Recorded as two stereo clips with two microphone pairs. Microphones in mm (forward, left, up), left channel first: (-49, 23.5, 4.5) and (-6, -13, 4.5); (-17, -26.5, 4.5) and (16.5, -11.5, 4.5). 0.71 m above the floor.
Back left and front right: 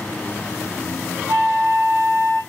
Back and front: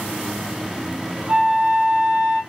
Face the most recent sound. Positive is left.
turn(degrees=-25)